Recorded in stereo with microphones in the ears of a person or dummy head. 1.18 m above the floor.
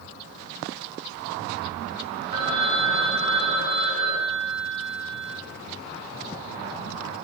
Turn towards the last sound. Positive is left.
turn(degrees=-50)  # may be behind; listen again after turning